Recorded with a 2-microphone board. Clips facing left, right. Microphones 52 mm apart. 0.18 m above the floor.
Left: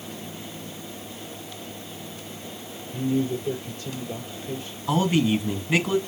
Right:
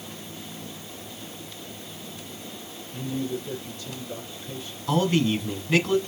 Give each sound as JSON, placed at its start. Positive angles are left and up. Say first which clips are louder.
{"t": 2.9, "sound": "a man speaking", "louder": "left 5 dB", "side_deg": 40, "distance_m": 4.5}
{"t": 4.9, "sound": "a man speaking", "louder": "left 1 dB", "side_deg": 15, "distance_m": 1.7}